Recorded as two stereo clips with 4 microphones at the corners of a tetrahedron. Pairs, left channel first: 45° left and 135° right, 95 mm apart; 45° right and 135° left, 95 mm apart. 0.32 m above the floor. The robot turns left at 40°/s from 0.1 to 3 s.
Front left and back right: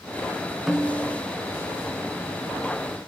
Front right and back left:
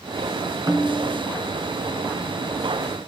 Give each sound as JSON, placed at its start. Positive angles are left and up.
{"t": 0.7, "sound": "a snare drum", "azimuth_deg": 135, "distance_m": 0.7}